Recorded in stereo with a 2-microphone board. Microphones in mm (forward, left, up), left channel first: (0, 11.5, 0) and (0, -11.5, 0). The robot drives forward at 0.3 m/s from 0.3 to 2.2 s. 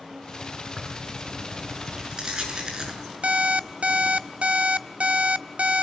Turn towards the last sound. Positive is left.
turn(degrees=-65)  # may be behind; listen again after turning